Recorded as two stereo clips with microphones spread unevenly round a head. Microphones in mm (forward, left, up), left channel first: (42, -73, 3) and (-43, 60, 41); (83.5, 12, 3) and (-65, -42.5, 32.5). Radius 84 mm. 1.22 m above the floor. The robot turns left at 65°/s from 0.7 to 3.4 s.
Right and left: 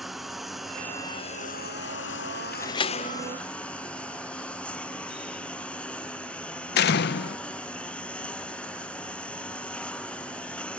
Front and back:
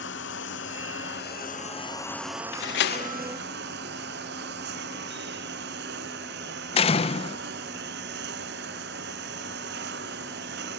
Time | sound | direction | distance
0.0 | a lawn mower | 35° left | ?
2.5 | a door slam | 20° left | ?